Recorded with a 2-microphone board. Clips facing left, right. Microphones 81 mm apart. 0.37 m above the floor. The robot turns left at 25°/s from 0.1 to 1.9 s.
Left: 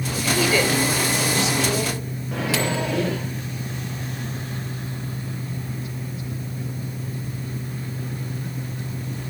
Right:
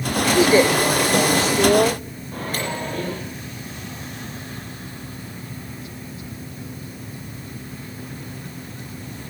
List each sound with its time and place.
0.3 s a woman speaking: 40° right, 1.1 m; by 2.0 s 75° right, 1.1 m
2.3 s a microwave: 80° left, 5 m